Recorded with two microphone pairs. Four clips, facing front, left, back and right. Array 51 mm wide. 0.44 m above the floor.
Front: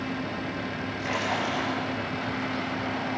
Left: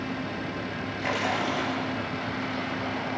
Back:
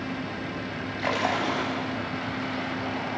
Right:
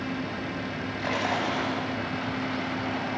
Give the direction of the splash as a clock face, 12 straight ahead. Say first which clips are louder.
Even, back 3 dB; 6 o'clock.